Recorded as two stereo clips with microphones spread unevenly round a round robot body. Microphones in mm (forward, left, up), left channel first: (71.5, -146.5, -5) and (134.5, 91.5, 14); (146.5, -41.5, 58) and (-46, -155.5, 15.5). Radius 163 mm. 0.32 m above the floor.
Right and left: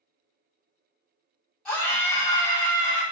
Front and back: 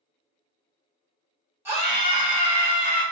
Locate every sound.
1.6 s a scream: straight behind, 1.1 m; by 3.0 s 175° left, 1.7 m